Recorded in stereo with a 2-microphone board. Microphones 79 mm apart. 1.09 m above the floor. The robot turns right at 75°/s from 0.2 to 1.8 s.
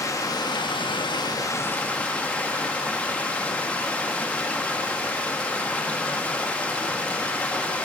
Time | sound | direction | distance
0.0 | running water | 40° left | 1.0 m